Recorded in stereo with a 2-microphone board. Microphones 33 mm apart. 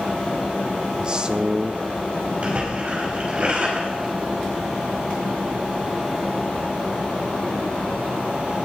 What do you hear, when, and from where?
1.0 s a man speaking: 25° right (ahead or behind), 0.8 m
2.4 s a splash: 35° right (ahead or behind), 4 m